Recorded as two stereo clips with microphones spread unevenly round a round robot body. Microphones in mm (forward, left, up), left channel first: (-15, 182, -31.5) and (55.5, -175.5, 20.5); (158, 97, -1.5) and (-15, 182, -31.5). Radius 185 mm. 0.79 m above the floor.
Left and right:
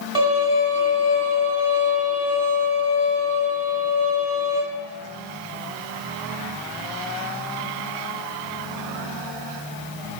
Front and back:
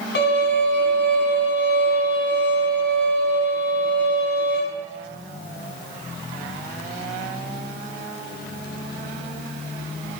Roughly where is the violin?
Ahead.